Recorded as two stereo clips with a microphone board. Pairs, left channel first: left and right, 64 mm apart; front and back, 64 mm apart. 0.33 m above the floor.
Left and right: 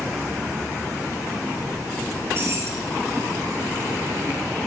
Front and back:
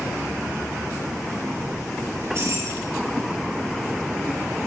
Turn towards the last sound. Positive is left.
turn(degrees=-135)